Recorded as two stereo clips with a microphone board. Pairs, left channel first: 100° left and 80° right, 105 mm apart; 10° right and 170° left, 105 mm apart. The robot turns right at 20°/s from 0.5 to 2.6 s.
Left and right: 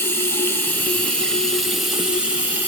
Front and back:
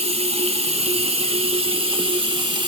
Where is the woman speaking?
No woman speaking in this recording.